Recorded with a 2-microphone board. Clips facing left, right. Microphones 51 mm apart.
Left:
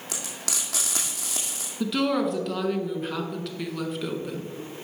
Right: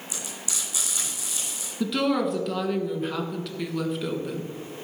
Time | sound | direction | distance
0.1 | frying | 80° left | 2.5 m
1.8 | a woman speaking | centre (ahead or behind) | 1.4 m